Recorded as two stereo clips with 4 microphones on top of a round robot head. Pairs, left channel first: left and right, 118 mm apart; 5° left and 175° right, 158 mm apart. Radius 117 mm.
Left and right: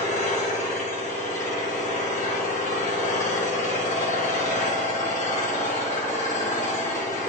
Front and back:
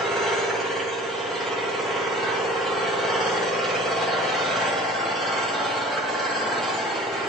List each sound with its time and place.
0.0 s an engine running: 90° left, 1.9 m